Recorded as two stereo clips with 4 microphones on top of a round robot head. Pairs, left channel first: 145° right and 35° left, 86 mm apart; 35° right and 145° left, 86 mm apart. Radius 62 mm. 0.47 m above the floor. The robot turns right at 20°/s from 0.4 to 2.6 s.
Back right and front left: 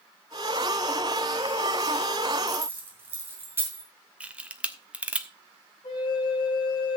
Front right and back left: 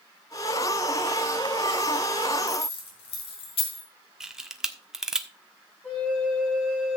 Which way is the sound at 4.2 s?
75° left.